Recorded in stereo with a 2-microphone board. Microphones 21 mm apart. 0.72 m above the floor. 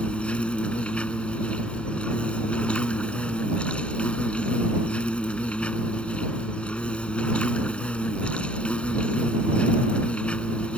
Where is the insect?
80° left.